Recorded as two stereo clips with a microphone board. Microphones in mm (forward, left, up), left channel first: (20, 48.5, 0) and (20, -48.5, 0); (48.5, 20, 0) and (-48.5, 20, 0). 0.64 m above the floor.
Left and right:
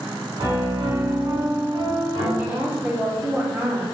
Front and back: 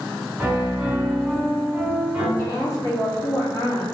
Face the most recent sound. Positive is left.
turn(degrees=-30)